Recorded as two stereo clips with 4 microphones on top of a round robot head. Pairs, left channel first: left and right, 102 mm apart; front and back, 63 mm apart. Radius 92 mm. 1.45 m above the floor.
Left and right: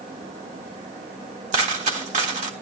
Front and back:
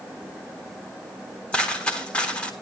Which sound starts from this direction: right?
A dropped coin, at 1.5 s.